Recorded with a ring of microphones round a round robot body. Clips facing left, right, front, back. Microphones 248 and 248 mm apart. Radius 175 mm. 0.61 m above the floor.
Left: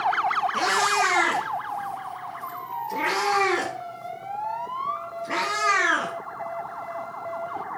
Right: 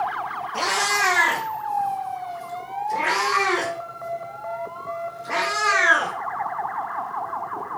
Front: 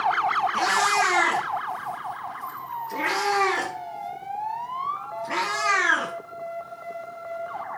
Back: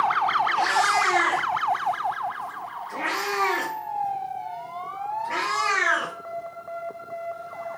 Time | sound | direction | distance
0.5 | a cat meowing | 30° left | 3 m